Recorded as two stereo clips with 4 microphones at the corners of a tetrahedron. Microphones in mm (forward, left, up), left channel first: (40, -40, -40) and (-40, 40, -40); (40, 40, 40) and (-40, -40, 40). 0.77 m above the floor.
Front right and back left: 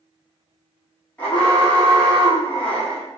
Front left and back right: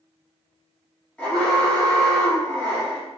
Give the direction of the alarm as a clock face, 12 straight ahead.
12 o'clock.